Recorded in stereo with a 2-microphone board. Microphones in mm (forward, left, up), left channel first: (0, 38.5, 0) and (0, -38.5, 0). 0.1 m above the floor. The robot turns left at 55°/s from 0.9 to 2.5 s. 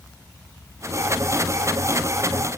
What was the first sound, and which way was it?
Only background noise.